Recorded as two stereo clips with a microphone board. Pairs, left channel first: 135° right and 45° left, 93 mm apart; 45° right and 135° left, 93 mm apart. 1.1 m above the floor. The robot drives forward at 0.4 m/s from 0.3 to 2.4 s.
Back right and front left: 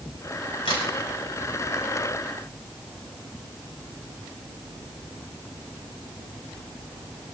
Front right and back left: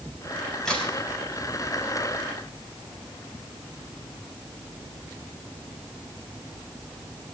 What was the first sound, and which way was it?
A crack, 130° right.